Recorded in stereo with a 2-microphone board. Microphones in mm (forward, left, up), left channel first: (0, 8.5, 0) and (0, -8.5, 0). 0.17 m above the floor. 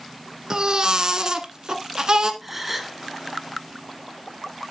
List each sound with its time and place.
0.5 s a baby crying: 40° right (ahead or behind), 1.1 m
2.4 s a gasp: 15° right (ahead or behind), 1.2 m